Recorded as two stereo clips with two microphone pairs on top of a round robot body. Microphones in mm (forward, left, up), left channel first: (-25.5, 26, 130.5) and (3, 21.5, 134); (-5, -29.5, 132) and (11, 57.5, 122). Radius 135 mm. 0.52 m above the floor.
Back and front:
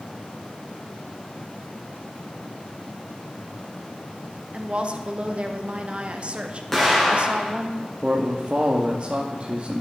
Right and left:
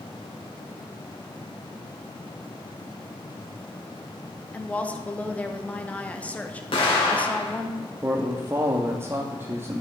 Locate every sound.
4.5 s a woman speaking: 25° right, 1.0 m
6.7 s an explosion: 110° right, 2.5 m
8.0 s a man speaking: 35° left, 0.9 m